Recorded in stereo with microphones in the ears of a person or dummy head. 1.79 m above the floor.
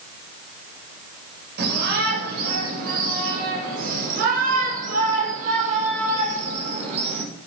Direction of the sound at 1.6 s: 60° right (ahead or behind).